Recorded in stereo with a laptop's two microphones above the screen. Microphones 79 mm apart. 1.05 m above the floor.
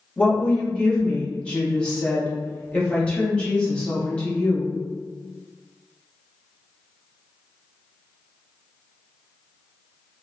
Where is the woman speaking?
15° left (ahead or behind), 1.6 m.